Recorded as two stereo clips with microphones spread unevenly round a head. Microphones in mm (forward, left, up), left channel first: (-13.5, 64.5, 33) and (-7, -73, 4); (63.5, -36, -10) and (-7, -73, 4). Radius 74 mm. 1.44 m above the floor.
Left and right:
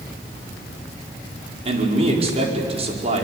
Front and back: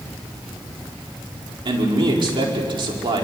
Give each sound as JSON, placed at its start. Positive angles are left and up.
{"t": 1.6, "sound": "a man speaking", "azimuth_deg": -135, "distance_m": 5.0}